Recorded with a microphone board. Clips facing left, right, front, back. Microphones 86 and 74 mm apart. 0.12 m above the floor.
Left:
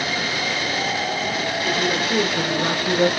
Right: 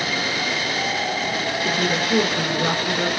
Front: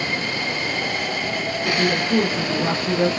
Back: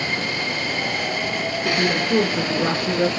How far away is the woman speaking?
About 1.6 m.